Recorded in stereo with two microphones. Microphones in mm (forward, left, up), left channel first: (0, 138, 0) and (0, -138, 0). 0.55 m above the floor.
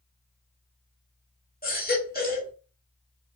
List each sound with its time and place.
1.6 s a baby crying: 35° left (ahead or behind), 1.3 m